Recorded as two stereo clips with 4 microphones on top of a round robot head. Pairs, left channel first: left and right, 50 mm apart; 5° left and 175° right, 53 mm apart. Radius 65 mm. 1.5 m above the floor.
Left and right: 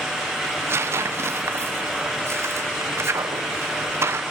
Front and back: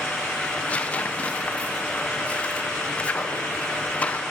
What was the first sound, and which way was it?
Tearing paper, 60° right.